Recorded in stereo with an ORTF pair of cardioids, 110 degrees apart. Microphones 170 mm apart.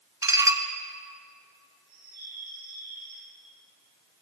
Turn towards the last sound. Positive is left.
turn(degrees=-65)